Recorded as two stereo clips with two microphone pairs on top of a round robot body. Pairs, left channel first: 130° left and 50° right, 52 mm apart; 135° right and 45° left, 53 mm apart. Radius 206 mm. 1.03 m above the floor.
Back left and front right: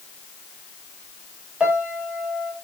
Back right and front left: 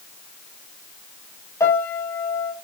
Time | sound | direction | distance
1.6 | a piano | 120° right | 6 m